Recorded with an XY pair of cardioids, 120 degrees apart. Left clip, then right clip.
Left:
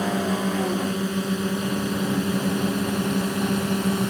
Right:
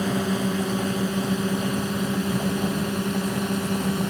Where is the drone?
5° right; by 4.1 s 10° left.